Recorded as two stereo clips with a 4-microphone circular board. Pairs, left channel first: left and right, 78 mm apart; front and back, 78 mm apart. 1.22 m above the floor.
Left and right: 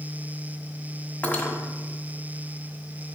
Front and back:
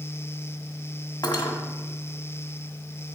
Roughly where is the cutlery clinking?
Ahead.